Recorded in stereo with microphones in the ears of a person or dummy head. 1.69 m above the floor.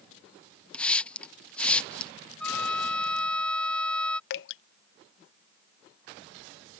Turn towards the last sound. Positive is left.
turn(degrees=60)  # may be behind; listen again after turning